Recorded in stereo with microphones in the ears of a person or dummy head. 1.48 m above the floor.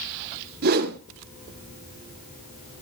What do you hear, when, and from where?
0.6 s a whoosh: 55° right (ahead or behind), 1.6 m